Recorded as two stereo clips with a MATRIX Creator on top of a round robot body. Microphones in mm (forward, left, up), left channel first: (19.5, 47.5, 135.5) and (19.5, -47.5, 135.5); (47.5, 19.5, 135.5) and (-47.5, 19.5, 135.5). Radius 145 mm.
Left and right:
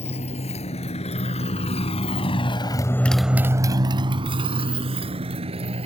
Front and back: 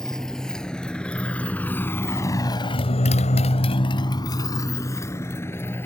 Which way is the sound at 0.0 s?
85° left.